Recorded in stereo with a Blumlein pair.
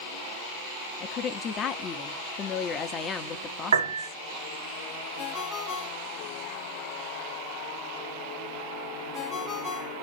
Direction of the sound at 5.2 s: 25° left.